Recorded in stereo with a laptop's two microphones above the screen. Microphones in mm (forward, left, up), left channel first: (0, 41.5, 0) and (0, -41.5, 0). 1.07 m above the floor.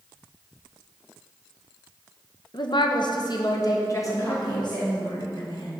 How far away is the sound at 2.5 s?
About 0.6 m.